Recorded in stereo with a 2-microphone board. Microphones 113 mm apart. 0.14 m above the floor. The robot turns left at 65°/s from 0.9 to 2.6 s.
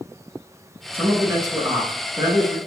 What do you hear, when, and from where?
0.9 s a man speaking: 30° right, 1.3 m; by 2.6 s 135° right, 1.3 m